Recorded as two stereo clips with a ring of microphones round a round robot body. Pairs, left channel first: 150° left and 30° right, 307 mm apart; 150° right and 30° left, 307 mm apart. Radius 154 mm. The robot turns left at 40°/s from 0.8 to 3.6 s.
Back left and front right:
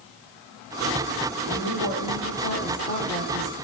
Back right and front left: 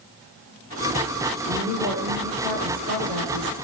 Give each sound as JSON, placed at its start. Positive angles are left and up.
{"t": 1.4, "sound": "a woman speaking", "azimuth_deg": 140, "distance_m": 6.5}